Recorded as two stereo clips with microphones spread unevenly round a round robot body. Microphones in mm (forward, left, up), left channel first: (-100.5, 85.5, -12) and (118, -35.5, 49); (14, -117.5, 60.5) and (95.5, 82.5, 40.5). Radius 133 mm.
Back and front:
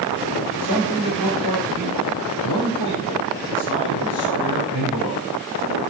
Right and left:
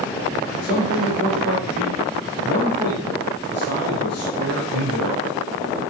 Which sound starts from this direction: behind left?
A man speaking, at 0.6 s.